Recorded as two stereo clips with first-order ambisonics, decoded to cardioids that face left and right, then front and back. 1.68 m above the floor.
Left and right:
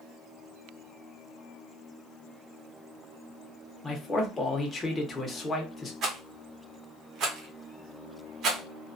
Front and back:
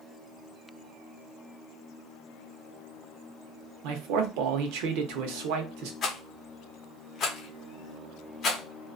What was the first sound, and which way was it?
A man speaking, 165° left.